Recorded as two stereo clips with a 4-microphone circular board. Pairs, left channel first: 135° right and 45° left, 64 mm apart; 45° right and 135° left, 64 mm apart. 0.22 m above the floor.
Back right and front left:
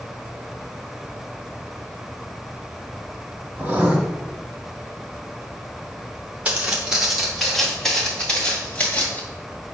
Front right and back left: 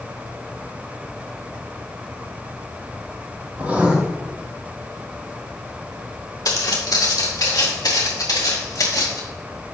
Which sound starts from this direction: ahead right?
Footsteps, at 6.5 s.